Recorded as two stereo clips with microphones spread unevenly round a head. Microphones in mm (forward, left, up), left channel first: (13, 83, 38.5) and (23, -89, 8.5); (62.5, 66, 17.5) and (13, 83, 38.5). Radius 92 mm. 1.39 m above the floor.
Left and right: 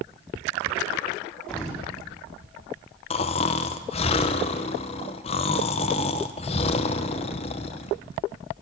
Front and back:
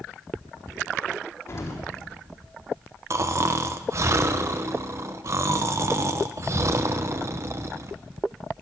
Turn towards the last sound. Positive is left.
turn(degrees=150)